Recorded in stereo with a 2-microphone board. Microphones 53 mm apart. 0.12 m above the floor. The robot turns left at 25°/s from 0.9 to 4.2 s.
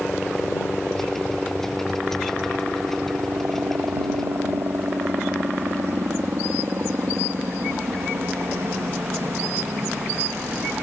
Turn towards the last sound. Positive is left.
turn(degrees=-50)  # may be behind; listen again after turning